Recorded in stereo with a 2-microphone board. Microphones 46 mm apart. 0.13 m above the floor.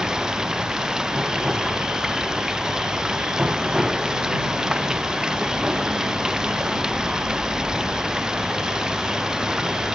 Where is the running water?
15° right (ahead or behind).